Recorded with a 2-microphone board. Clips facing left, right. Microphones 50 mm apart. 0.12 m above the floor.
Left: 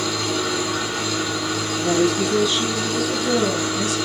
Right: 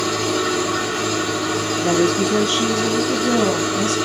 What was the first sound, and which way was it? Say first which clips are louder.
An engine running: right 3 dB; 25° right (ahead or behind).